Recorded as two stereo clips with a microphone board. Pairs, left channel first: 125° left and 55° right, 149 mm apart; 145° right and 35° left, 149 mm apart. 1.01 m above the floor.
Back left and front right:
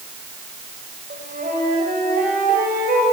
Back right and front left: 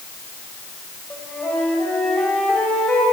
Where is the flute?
65° right, 5.5 m.